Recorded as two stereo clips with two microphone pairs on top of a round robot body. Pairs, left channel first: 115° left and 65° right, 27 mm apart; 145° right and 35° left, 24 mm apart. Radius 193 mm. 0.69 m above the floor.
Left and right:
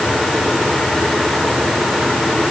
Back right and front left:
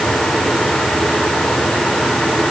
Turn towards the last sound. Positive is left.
No sound to turn to.